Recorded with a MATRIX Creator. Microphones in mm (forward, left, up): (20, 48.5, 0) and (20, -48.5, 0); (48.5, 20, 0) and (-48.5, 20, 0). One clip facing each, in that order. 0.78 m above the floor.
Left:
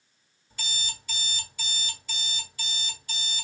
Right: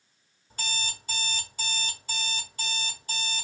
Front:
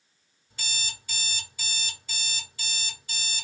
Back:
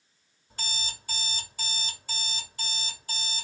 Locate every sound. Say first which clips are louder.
0.5 s an alarm clock: right 3 dB, back 1 dB; 135° right, 1.9 m